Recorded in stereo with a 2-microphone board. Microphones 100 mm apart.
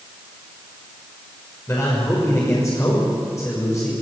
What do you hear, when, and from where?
1.7 s a man speaking: 30° left (ahead or behind), 6 m